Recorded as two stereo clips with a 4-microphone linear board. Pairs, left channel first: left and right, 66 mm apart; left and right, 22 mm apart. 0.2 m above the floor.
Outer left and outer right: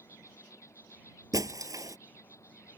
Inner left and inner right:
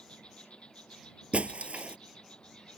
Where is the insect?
50° left (ahead or behind).